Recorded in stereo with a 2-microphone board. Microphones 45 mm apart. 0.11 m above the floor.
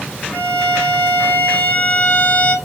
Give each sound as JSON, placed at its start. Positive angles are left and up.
{"t": 0.3, "sound": "a violin", "side_deg": 35, "distance_m": 1.0}